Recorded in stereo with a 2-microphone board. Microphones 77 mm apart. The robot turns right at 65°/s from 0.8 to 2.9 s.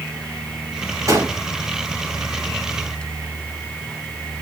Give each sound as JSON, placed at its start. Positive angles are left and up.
{"t": 1.1, "sound": "a gunshot", "side_deg": -40, "distance_m": 2.5}